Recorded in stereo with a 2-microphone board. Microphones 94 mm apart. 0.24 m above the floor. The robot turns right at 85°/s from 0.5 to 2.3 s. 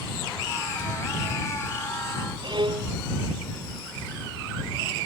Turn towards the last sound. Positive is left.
turn(degrees=-55)  # may be behind; listen again after turning